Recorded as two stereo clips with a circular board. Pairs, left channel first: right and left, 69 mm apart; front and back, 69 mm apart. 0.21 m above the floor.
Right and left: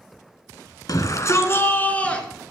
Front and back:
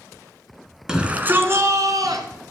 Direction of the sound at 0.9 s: 100° right.